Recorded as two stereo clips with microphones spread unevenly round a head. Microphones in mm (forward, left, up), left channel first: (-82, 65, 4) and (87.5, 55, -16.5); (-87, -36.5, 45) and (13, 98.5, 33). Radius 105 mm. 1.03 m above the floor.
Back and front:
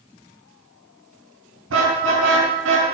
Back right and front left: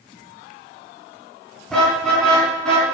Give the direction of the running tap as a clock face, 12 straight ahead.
I don't hear a running tap.